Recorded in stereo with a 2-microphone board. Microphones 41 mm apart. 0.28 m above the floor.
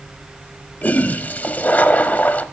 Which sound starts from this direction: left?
A toilet flushing, at 0.8 s.